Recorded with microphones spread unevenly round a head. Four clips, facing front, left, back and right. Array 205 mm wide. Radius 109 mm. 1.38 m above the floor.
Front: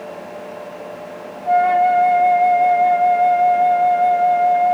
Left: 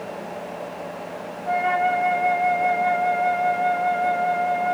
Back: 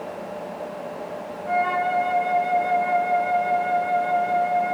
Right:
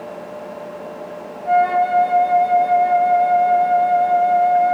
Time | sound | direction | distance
1.4 | a flute | 75° right | 4.5 m